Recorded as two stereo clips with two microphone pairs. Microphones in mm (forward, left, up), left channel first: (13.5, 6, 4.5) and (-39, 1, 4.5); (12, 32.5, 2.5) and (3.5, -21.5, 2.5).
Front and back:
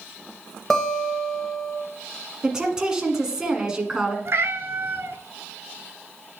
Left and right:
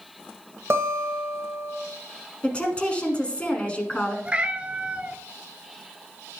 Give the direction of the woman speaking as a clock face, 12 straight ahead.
8 o'clock.